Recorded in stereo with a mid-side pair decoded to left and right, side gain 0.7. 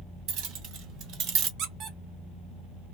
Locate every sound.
0.3 s keys jangling: 65° right, 1.7 m
1.6 s a squeak: 55° right, 1.0 m